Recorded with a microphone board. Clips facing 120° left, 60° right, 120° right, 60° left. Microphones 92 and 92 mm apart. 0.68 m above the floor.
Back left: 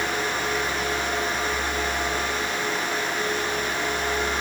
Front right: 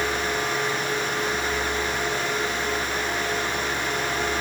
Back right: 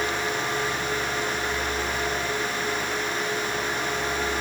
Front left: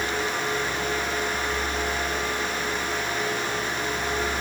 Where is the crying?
No crying in this recording.